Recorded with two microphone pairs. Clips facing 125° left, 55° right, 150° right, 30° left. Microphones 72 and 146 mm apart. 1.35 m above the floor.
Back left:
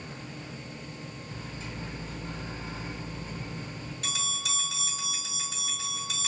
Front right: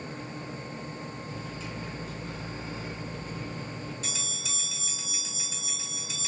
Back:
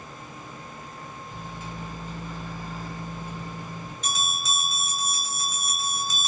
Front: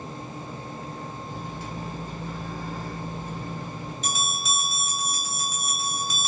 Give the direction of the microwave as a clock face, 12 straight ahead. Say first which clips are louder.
Front right 2 dB, front 3 dB; 9 o'clock.